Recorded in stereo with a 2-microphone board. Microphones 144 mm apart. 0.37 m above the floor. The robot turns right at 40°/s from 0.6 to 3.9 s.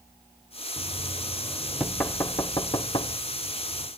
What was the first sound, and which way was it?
Knocking, 20° right (ahead or behind).